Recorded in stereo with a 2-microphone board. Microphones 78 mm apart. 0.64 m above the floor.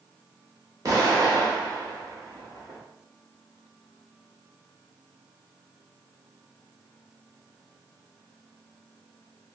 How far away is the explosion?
About 1.0 m.